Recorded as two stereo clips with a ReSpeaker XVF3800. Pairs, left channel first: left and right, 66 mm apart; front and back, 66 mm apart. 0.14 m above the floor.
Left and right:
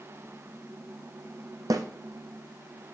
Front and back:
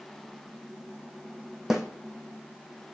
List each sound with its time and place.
1.7 s a snare drum: 100° right, 1.2 m